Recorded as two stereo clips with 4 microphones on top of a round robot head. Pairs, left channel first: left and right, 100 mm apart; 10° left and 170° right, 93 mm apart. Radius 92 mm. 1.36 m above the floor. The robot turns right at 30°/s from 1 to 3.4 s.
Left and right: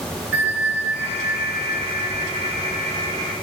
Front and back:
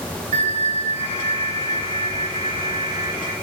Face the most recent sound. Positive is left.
turn(degrees=-95)